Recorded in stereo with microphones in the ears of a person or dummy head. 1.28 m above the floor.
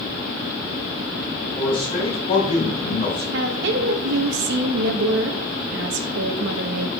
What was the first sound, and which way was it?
A man speaking, 25° left (ahead or behind).